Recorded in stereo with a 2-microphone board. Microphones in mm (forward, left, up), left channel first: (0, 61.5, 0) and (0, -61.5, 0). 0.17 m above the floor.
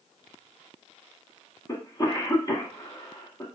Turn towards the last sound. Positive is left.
turn(degrees=30)  # may be behind; listen again after turning